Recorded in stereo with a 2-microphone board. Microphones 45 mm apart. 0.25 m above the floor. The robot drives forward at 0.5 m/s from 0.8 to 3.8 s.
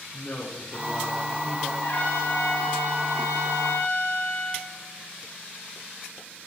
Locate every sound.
0.1 s a man speaking: 70° left (ahead or behind), 9 m; by 1.7 s 65° left (ahead or behind), 9.5 m
1.8 s a trumpet: 75° left (ahead or behind), 9.5 m; by 4.7 s 80° left, 9 m